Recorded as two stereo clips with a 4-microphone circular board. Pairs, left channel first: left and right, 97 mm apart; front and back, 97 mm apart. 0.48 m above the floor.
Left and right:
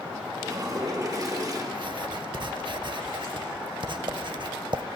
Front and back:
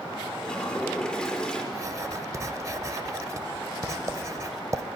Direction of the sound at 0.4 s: 75° right.